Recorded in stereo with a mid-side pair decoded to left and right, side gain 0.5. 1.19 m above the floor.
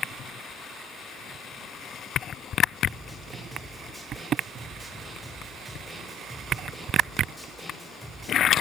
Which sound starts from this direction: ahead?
A snare drum, at 2.9 s.